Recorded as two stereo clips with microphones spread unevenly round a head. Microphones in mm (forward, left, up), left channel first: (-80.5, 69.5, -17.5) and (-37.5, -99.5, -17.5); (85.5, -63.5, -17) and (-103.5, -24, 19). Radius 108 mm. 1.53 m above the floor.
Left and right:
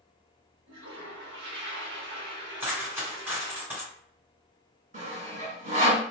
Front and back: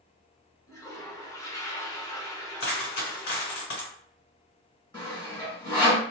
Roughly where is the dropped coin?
Ahead.